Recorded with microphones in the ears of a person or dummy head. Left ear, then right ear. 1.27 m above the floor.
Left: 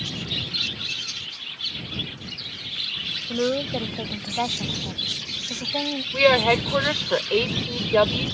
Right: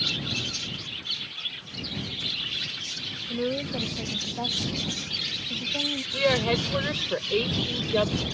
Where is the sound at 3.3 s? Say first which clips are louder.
Left 5 dB; 65° left (ahead or behind); by 6.0 s 50° left (ahead or behind).